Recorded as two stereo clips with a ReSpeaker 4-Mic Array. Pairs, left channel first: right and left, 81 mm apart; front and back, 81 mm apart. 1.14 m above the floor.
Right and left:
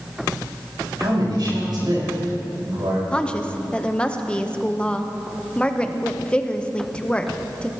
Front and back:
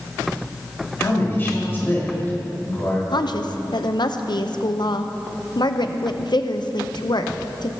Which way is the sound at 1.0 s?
65° left.